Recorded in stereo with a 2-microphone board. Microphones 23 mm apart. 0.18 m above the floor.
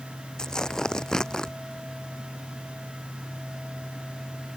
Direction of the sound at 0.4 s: 30° left (ahead or behind).